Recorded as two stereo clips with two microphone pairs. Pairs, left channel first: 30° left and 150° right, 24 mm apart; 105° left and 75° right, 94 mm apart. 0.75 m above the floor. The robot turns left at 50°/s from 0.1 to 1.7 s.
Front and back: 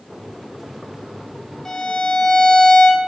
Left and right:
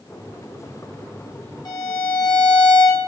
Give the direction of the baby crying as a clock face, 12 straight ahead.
I don't hear a baby crying.